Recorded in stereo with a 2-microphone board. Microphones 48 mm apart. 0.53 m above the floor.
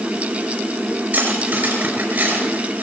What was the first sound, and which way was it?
Cutlery clinking, 40° right (ahead or behind).